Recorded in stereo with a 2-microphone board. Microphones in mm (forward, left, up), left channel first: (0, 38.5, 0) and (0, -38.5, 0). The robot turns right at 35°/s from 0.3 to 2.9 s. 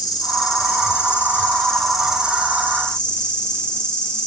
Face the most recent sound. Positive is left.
turn(degrees=-150)